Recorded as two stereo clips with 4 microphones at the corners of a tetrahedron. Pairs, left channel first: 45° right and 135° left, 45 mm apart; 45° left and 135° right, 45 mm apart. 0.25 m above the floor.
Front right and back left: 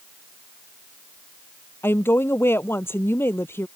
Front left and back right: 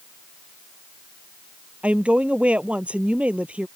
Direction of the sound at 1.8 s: 75° right.